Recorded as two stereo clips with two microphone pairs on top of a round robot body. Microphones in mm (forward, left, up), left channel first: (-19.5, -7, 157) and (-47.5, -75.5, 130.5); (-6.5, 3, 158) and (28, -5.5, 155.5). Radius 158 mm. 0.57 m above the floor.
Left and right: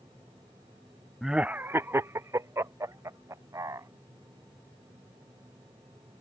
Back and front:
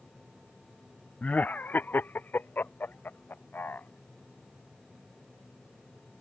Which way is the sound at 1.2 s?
165° right.